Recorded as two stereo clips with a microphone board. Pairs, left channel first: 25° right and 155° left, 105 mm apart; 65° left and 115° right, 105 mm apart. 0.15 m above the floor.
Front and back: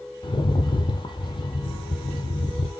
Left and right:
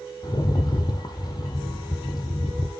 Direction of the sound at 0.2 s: 20° left.